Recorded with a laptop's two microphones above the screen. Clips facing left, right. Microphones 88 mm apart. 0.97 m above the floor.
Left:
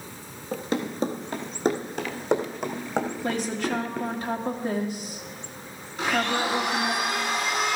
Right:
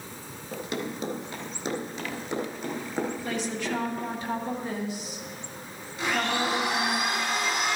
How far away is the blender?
About 5 m.